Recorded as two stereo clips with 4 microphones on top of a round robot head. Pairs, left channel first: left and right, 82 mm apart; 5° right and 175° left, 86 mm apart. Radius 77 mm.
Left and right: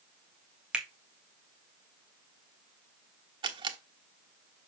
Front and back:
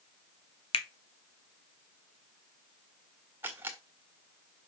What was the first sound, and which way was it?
A finger snap, 10° right.